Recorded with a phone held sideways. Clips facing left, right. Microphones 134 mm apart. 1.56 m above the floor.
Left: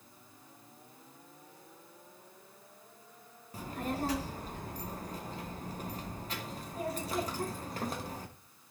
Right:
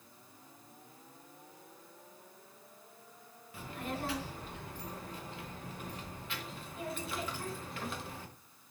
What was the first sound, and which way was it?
A child speaking, 40° left (ahead or behind).